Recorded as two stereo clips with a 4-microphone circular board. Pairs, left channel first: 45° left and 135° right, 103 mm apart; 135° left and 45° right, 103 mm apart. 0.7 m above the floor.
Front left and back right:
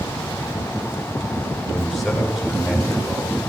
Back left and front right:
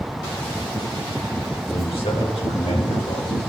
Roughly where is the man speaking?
Behind left.